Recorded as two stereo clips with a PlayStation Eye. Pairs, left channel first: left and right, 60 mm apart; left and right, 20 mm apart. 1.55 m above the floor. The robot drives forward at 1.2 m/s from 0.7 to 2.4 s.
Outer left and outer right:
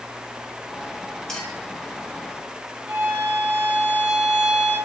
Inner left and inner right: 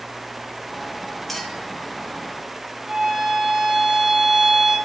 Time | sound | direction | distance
1.3 | a clink | 10° left (ahead or behind) | 5 m
2.9 | a violin | 35° right (ahead or behind) | 4 m